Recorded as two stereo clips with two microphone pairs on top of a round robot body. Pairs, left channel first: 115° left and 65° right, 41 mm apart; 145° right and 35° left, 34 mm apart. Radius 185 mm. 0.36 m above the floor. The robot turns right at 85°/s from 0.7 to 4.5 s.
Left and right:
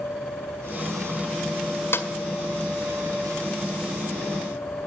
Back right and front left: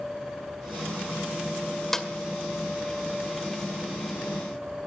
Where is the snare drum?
130° left, 1.9 m; by 2.1 s 145° left, 1.9 m.